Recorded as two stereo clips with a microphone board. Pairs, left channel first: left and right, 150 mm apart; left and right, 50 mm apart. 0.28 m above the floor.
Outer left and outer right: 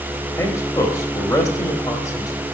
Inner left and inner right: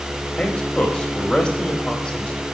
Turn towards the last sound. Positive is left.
turn(degrees=20)  # may be behind; listen again after turning